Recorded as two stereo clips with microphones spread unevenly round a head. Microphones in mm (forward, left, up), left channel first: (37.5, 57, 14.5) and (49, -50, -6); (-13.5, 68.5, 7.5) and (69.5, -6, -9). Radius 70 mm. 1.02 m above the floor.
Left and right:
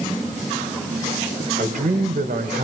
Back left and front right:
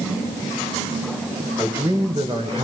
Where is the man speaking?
115° right, 4 m; by 2.6 s 100° right, 4 m.